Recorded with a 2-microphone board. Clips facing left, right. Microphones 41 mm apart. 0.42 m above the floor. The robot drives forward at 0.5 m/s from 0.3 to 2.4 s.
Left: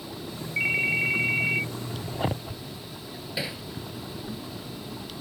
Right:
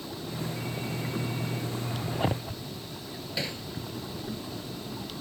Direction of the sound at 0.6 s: 85° left.